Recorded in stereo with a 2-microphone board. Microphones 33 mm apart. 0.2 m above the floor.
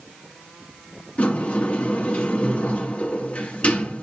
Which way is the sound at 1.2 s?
40° left (ahead or behind).